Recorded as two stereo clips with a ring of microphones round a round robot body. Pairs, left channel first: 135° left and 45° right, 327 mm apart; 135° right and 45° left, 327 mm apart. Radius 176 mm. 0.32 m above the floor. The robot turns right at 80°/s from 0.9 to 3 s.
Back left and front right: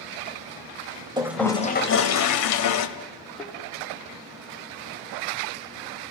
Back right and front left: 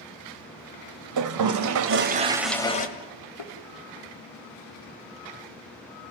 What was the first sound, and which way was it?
A toilet flushing, 30° left.